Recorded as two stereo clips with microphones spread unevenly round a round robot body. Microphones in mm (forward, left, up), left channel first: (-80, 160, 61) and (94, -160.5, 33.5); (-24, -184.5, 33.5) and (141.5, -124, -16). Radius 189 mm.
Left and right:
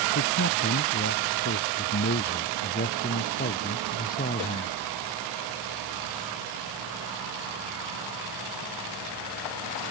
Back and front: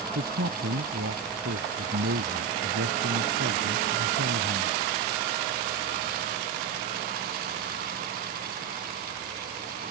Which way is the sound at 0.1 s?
60° left.